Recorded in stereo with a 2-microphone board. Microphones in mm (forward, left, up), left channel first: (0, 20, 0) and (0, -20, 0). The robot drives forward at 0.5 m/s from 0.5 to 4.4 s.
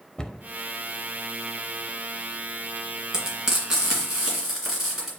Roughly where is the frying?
Centre.